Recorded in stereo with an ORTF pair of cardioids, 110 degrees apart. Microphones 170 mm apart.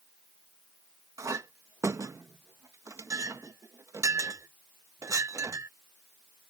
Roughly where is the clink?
Ahead.